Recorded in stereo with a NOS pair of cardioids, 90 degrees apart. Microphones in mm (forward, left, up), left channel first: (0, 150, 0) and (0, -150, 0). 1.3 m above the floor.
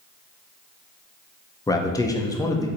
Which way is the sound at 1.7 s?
10° left.